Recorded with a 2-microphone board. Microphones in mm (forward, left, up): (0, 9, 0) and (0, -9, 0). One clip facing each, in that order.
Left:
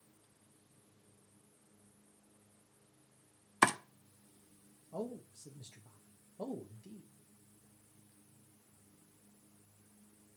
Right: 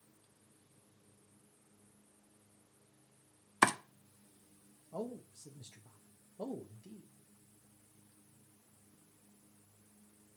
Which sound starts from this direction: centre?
Chopping, at 3.6 s.